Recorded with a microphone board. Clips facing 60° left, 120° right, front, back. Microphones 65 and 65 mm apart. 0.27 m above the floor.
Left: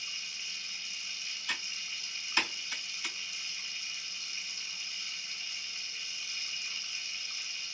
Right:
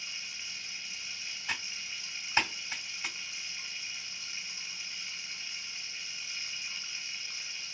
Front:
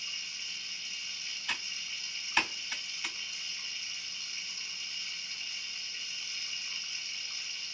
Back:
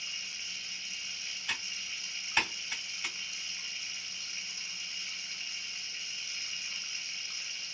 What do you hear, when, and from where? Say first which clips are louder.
0.0 s running water: even, even; 135° right, 1.3 m
1.5 s typing on a keyboard: right 1 dB, even; 100° right, 1.9 m